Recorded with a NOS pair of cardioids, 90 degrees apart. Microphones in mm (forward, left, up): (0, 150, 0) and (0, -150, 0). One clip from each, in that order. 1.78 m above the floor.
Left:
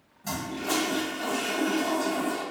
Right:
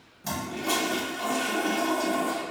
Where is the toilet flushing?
30° right, 1.2 m.